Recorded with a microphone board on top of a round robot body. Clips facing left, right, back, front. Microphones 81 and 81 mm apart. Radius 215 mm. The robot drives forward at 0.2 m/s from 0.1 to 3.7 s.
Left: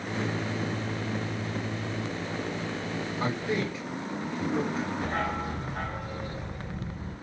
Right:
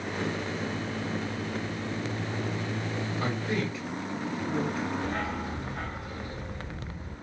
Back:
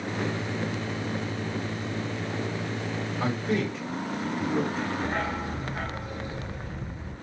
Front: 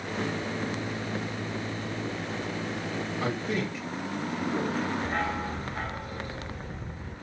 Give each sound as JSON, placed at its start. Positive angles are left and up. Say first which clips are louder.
{"t": 3.2, "sound": "a man speaking", "louder": "left 2 dB, back 4 dB", "azimuth_deg": 145, "distance_m": 3.5}
{"t": 5.0, "sound": "a dog barking", "louder": "left 2 dB, even", "azimuth_deg": 115, "distance_m": 2.5}